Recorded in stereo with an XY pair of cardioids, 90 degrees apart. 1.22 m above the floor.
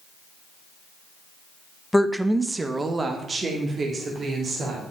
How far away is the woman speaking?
About 0.8 m.